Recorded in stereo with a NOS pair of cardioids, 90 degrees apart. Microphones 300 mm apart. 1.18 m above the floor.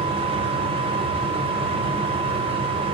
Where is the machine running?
20° right, 0.7 m.